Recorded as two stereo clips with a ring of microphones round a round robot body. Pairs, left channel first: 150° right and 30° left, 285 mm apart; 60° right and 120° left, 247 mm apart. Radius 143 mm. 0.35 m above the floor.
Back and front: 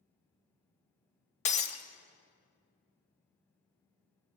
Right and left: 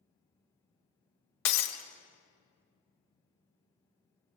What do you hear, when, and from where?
1.4 s breaking glass: 85° right, 0.7 m